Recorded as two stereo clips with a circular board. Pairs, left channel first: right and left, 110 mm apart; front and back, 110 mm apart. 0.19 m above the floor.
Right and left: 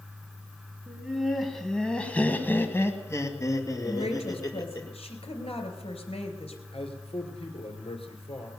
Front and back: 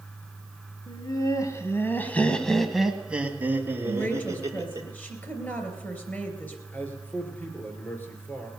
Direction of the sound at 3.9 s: 70° right.